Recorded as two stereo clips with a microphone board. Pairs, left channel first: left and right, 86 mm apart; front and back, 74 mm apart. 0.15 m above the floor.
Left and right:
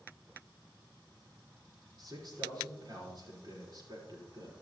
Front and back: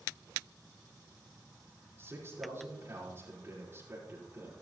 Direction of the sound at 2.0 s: 125° right.